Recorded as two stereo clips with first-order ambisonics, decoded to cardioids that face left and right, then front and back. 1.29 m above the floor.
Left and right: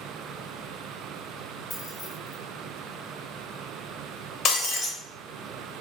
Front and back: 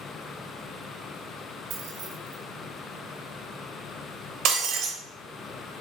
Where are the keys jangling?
155° left, 0.6 m.